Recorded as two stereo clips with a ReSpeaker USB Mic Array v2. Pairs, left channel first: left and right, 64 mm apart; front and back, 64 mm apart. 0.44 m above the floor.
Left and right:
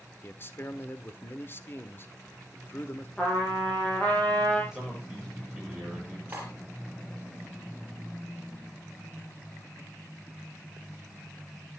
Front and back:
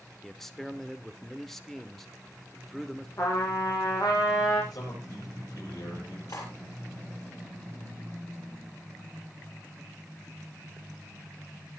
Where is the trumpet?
20° left, 6.5 m.